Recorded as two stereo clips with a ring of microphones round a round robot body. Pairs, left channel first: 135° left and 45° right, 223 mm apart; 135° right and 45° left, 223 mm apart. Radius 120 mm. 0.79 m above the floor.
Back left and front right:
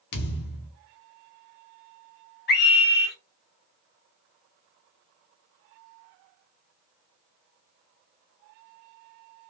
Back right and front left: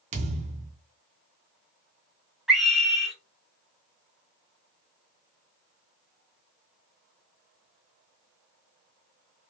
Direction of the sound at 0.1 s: 100° left.